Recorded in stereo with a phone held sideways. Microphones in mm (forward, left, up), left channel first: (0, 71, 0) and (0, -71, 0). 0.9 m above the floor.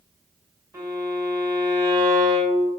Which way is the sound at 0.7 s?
25° right (ahead or behind).